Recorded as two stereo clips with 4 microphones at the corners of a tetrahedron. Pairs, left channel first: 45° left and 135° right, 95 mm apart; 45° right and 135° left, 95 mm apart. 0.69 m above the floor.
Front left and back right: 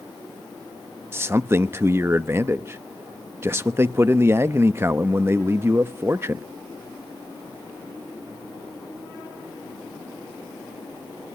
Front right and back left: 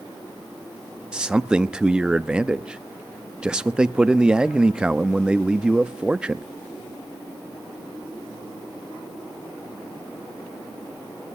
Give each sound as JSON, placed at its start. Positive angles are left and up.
{"t": 1.1, "sound": "a man speaking", "azimuth_deg": -160, "distance_m": 0.6}